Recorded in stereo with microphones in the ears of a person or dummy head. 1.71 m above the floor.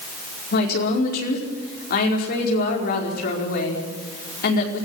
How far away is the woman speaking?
About 5.5 m.